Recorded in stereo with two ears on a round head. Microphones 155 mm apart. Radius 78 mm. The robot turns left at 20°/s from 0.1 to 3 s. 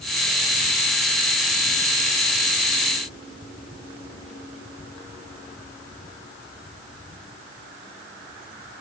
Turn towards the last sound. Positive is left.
No sound to turn to.